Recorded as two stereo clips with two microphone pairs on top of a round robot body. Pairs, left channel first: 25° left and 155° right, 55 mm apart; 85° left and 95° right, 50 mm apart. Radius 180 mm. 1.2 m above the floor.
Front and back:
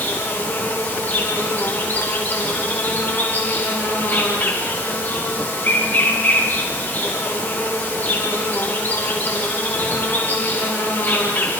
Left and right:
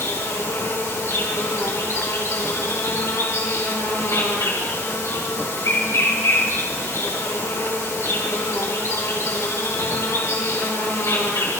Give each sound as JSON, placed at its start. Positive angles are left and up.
{"t": 0.0, "sound": "an insect", "azimuth_deg": 75, "distance_m": 5.5}